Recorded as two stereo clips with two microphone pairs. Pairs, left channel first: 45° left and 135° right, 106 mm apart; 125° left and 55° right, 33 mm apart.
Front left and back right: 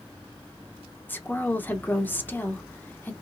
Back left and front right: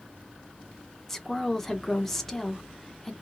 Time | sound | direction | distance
1.1 | a woman speaking | 65° left | 0.7 m